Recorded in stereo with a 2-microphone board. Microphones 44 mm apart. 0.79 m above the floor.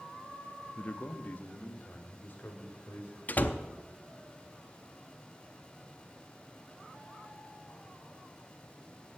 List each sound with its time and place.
0.8 s a man speaking: 30° left (ahead or behind), 0.7 m; by 3.2 s 50° left (ahead or behind), 3 m
3.3 s a door slam: 40° left (ahead or behind), 0.6 m